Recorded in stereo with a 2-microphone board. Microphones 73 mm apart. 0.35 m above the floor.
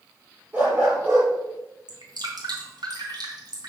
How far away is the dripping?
About 3 m.